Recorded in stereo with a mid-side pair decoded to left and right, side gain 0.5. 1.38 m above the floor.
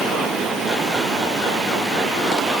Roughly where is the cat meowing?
No cat meowing in this recording.